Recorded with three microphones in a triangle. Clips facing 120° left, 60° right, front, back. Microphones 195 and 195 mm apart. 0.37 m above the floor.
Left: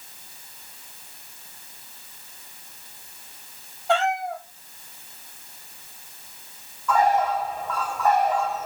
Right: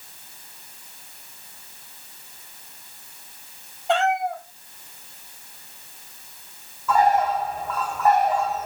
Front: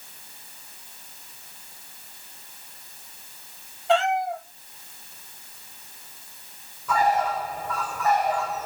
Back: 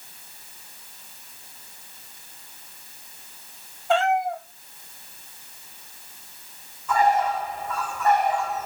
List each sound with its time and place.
3.9 s a cat meowing: 10° left, 3.5 m
6.9 s a bird: 25° left, 4 m